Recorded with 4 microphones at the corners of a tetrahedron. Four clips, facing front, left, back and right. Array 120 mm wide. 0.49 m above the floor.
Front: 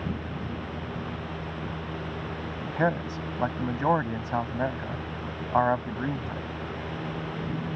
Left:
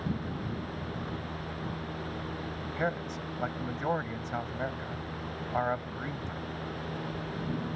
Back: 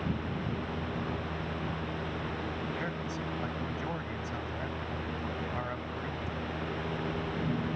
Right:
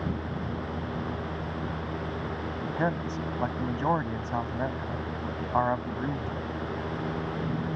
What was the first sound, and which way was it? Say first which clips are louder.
A man speaking: right 4 dB, front 9 dB; 20° right.